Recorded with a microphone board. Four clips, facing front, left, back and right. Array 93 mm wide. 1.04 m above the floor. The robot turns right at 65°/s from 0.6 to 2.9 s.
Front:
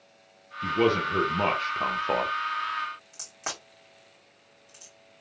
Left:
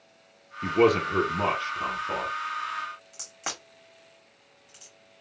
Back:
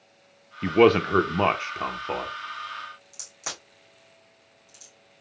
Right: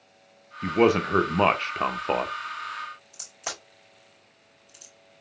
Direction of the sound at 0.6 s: 175° right.